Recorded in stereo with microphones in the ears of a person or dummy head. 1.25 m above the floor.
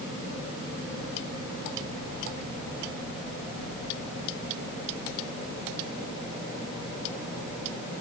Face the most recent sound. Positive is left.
No sound to turn to.